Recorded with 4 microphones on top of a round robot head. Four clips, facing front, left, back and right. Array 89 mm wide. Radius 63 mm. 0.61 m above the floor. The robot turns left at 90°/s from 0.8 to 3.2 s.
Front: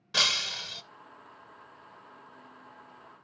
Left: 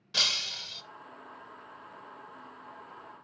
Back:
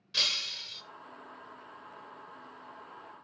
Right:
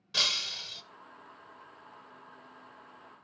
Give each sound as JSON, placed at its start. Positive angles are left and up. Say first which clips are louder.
{"t": 0.1, "sound": "breaking glass", "louder": "even, front 7 dB", "azimuth_deg": 5, "distance_m": 0.7}